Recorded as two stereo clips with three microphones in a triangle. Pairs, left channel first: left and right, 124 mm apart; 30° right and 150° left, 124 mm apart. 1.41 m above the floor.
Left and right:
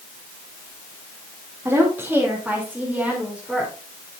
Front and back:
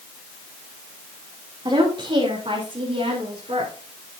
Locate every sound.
1.6 s a woman speaking: 160° right, 3 m; by 3.7 s straight behind, 3.5 m